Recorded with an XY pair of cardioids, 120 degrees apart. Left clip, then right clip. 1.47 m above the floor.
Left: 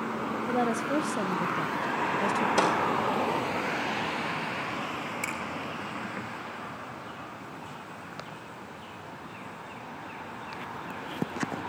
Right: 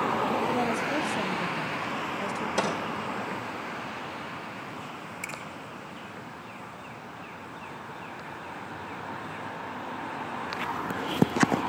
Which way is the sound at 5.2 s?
25° left.